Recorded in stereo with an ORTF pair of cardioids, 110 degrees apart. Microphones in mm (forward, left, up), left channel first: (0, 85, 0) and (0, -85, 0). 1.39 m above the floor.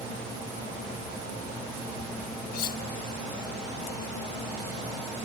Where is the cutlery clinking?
65° left.